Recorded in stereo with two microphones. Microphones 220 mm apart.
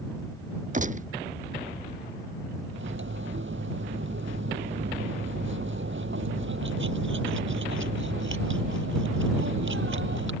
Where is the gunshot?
40° right (ahead or behind).